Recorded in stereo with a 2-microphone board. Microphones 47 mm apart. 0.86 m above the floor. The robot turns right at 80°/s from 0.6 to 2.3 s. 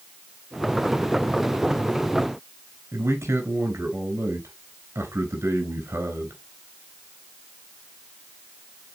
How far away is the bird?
I don't hear a bird.